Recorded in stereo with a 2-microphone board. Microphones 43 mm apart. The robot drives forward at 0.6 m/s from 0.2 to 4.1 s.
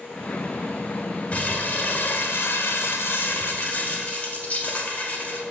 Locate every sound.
1.3 s crumpling: 35° left (ahead or behind), 1.1 m; by 5.4 s 40° left (ahead or behind), 1.1 m